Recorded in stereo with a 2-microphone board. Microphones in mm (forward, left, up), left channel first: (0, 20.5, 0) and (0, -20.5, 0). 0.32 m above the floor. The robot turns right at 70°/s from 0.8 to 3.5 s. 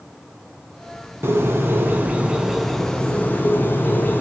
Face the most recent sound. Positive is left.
turn(degrees=60)